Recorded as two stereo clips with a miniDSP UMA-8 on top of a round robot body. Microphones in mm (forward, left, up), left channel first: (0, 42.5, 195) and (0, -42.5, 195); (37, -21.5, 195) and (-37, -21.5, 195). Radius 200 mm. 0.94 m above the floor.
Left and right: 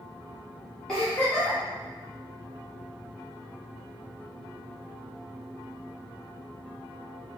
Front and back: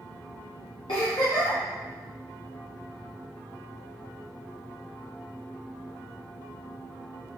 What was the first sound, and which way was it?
A giggle, 10° left.